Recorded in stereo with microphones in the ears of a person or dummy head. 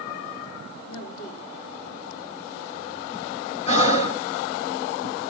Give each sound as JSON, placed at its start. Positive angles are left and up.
{"t": 0.8, "sound": "a woman speaking", "side_deg": 90, "distance_m": 5.0}
{"t": 3.7, "sound": "breathing", "side_deg": 35, "distance_m": 1.4}